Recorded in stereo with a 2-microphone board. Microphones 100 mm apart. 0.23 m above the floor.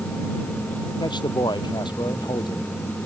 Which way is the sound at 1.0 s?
45° left (ahead or behind).